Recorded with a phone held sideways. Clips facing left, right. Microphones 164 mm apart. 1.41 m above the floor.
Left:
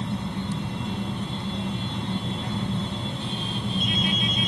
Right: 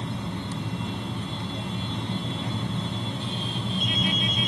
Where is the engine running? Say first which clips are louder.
Left 3 dB; 65° left (ahead or behind), 5.5 m.